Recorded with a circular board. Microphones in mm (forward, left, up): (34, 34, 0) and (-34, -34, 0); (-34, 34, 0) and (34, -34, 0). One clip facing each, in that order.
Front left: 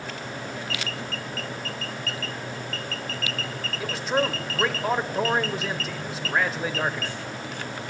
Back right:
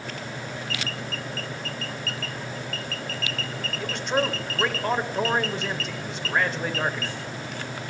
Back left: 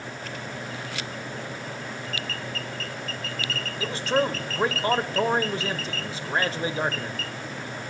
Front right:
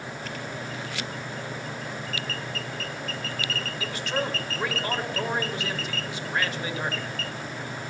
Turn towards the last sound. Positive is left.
turn(degrees=130)